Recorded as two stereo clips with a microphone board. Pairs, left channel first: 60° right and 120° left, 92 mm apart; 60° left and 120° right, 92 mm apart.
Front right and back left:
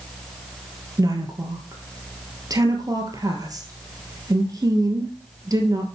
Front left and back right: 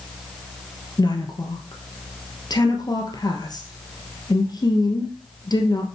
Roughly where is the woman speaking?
Left.